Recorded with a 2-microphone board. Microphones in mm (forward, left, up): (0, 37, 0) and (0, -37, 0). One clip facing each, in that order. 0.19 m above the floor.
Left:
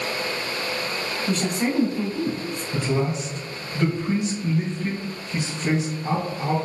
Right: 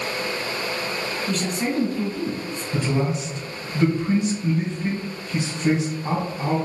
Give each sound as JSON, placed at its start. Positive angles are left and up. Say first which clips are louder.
{"t": 1.3, "sound": "a woman speaking", "louder": "left 2 dB", "side_deg": 25, "distance_m": 1.1}
{"t": 2.7, "sound": "a man speaking", "louder": "right 1 dB", "side_deg": -15, "distance_m": 1.7}